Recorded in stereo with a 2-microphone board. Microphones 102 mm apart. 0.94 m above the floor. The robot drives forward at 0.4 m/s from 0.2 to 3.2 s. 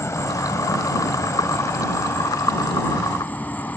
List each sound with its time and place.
0.0 s an insect: 30° left (ahead or behind); by 3.8 s 20° left (ahead or behind)